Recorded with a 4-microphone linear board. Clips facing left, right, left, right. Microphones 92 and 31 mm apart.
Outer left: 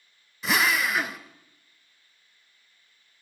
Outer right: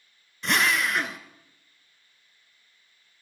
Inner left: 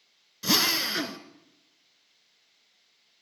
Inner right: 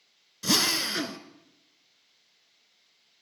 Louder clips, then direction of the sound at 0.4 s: Even, inner left 1 dB; 5° left (ahead or behind).